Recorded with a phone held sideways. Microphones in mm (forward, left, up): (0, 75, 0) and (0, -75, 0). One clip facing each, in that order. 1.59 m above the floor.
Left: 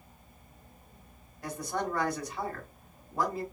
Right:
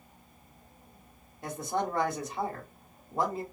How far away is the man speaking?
About 1.2 m.